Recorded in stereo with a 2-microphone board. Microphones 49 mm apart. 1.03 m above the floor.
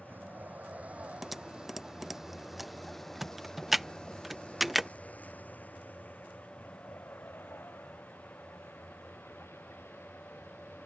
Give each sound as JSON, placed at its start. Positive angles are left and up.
{"t": 0.0, "sound": "a vehicle", "side_deg": -40}
{"t": 1.2, "sound": "typing on a keyboard", "side_deg": -5}